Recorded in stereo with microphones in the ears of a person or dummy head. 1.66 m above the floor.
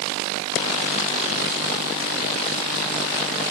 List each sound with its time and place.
Only background noise.